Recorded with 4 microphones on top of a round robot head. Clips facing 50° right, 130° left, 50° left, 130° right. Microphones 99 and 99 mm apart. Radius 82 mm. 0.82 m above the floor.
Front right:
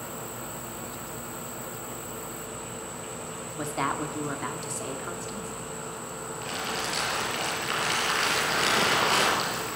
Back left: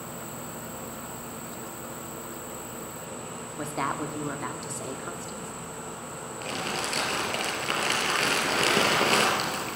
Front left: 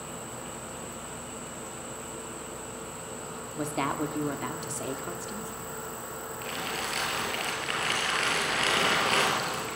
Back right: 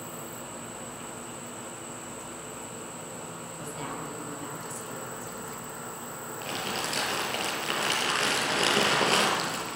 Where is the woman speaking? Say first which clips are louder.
Front right 1 dB, front left 9 dB; 40° left, 2 m.